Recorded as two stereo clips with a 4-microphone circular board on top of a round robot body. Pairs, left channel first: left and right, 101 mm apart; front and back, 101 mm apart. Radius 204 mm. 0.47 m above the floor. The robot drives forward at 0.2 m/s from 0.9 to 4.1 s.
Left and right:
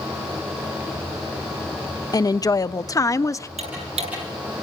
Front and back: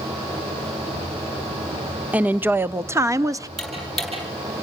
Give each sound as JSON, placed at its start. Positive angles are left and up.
{"t": 2.1, "sound": "a woman speaking", "azimuth_deg": 110, "distance_m": 0.8}
{"t": 3.6, "sound": "ticking", "azimuth_deg": -90, "distance_m": 9.0}